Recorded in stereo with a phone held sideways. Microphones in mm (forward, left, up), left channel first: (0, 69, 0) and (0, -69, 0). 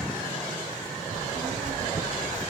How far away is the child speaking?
About 6 m.